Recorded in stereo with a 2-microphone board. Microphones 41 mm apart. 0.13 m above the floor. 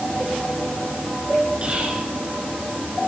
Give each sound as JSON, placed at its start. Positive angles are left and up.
{"t": 1.6, "sound": "whispering", "side_deg": -30, "distance_m": 1.7}